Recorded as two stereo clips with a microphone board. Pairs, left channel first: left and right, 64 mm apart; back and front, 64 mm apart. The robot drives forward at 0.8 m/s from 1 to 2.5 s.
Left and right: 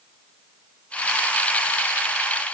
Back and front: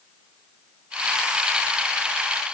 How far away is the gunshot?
No gunshot in this recording.